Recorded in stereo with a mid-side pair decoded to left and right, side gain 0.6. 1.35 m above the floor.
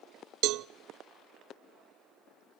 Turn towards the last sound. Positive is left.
turn(degrees=-65)